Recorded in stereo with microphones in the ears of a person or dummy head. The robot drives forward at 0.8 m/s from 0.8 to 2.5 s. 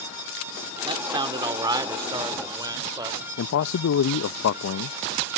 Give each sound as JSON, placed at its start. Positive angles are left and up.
{"t": 0.8, "sound": "a man speaking", "side_deg": -20}
{"t": 3.4, "sound": "a man speaking", "side_deg": 75}